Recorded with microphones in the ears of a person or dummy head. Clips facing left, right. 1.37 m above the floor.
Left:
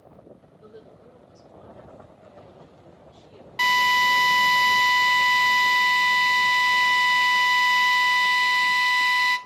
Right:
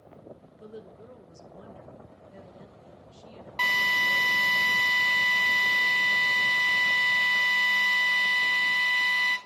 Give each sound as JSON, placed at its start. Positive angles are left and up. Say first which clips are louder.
{"t": 0.6, "sound": "a woman speaking", "louder": "right 3 dB", "side_deg": -60, "distance_m": 1.4}
{"t": 3.6, "sound": "a drill", "louder": "left 10 dB", "side_deg": 5, "distance_m": 1.3}